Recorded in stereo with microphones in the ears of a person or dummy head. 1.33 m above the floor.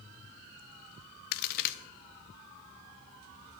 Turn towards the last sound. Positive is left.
turn(degrees=55)  # may be behind; listen again after turning